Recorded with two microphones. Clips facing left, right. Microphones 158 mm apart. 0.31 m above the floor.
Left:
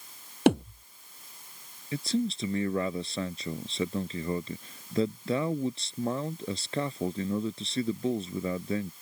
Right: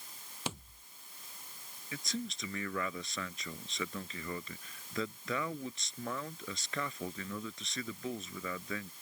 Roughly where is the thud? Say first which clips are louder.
Left 20 dB; left.